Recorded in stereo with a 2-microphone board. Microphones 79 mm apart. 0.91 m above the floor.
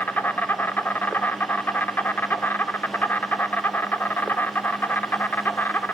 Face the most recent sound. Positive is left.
turn(degrees=25)  # may be behind; listen again after turning